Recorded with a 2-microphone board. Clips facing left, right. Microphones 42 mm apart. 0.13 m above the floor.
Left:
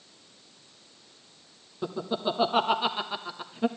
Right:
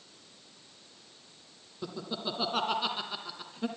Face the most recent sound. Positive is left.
turn(degrees=20)  # may be behind; listen again after turning